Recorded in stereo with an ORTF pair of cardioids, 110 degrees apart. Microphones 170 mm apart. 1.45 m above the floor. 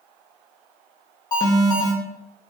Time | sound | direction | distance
1.3 | an alarm | 25° left | 2.5 m